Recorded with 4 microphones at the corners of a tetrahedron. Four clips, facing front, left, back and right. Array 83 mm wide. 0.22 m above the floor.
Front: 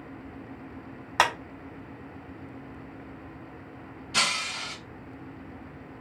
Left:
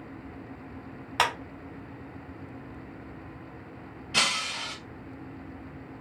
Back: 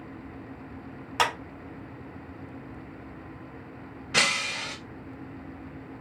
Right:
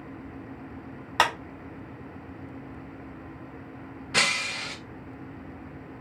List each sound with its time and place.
1.2 s a clap: 30° right, 0.9 m
4.1 s breaking glass: 150° right, 2 m